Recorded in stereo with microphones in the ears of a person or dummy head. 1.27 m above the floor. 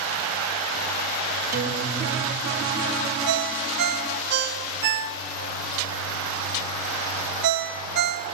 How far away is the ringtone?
About 2 m.